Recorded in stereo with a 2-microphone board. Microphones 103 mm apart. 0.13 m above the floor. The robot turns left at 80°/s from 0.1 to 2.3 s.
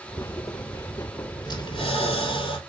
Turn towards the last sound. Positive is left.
turn(degrees=70)